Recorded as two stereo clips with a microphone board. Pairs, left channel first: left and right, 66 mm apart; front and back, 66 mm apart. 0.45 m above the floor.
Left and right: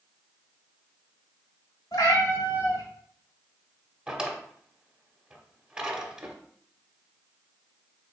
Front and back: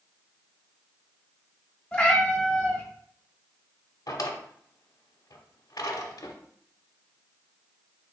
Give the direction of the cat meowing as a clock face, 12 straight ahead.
10 o'clock.